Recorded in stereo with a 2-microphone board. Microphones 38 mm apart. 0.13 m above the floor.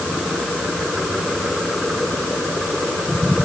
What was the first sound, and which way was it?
Only background noise.